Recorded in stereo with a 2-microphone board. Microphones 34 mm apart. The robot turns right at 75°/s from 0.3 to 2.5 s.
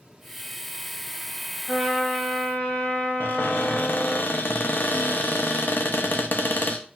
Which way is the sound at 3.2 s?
60° left (ahead or behind).